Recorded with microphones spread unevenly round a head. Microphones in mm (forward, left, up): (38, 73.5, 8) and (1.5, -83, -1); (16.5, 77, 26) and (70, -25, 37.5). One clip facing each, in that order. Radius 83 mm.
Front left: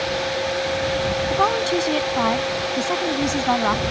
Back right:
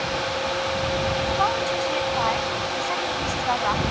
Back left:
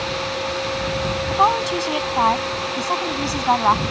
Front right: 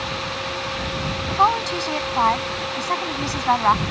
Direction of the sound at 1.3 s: 40° left.